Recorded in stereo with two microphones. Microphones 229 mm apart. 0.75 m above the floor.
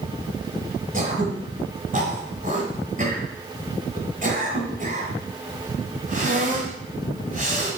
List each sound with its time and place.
0.9 s throat clearing: 35° right (ahead or behind), 2 m